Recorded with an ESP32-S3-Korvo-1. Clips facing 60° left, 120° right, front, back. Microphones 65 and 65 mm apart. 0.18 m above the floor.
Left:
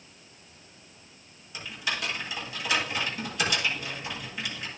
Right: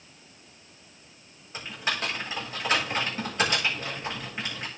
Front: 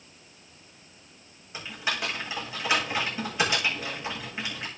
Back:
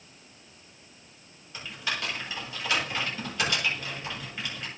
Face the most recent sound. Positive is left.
turn(degrees=-70)